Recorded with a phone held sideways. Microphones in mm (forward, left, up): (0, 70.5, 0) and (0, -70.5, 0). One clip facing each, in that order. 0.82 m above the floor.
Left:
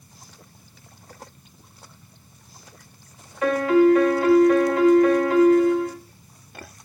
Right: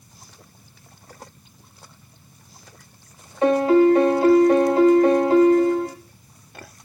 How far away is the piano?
About 1.8 m.